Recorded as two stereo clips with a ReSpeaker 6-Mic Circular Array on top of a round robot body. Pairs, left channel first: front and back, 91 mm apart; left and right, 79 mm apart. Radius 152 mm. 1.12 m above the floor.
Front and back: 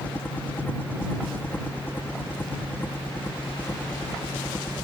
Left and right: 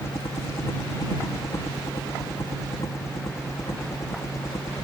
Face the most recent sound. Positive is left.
turn(degrees=60)